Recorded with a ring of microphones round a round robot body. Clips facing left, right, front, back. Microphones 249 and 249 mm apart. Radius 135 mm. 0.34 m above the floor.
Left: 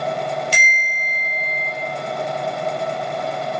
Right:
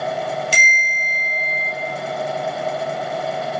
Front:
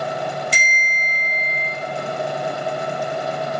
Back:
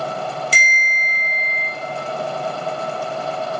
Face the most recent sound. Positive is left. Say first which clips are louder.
# right 1 dB, even
turn(degrees=-115)